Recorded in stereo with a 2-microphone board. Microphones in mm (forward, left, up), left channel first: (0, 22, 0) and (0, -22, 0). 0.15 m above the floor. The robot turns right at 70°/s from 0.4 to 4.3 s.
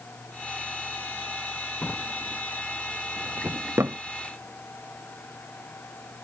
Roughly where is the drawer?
Left.